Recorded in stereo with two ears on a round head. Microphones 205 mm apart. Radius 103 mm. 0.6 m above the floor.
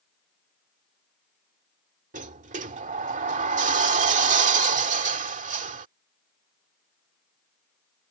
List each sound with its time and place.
2.1 s a sliding door: 35° right (ahead or behind)